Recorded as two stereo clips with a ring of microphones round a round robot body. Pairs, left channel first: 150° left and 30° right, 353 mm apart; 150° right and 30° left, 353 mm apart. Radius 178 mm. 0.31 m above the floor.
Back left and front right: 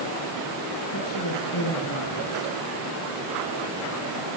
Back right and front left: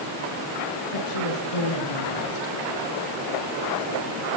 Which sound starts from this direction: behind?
A woman speaking, at 0.9 s.